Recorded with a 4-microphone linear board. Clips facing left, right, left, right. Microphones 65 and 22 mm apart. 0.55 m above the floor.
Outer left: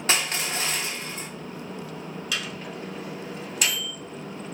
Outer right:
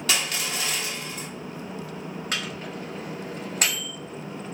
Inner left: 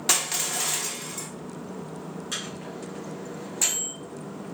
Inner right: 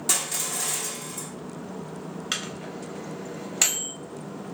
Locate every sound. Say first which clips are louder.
0.1 s crushing: outer left 2 dB, inner left 2 dB; 30° left (ahead or behind), 0.6 m
2.3 s a microwave: even, inner right 3 dB; 45° right (ahead or behind), 1.0 m